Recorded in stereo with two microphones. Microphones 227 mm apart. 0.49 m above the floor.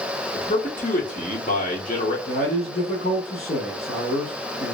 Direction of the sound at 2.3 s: 45° left (ahead or behind).